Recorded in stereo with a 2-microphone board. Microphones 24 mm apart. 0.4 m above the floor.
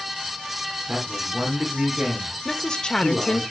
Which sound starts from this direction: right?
A man speaking, at 0.9 s.